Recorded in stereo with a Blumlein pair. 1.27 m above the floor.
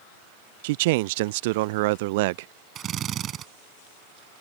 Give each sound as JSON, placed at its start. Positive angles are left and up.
{"t": 0.6, "sound": "a man speaking", "azimuth_deg": -50}
{"t": 2.8, "sound": "a drill", "azimuth_deg": -30}